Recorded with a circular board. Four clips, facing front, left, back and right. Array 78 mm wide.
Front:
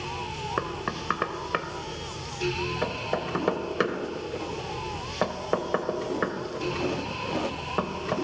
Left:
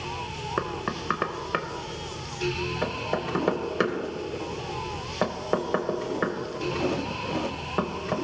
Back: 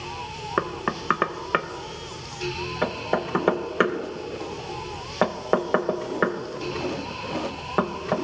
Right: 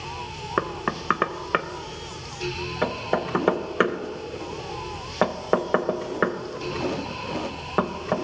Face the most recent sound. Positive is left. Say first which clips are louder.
# right 4 dB, back 7 dB
turn(degrees=-135)